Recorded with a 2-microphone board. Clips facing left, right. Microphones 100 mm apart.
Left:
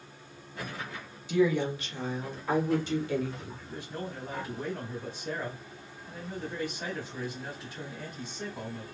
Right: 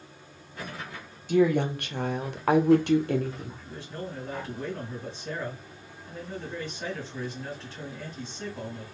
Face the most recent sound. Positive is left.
turn(degrees=10)  # may be behind; listen again after turning